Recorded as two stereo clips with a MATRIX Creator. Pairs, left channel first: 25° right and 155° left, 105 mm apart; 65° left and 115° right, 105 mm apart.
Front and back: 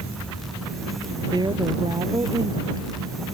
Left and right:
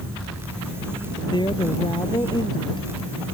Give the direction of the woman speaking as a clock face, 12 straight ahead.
8 o'clock.